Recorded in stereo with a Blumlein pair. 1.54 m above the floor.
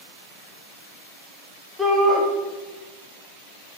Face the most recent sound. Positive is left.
turn(degrees=-5)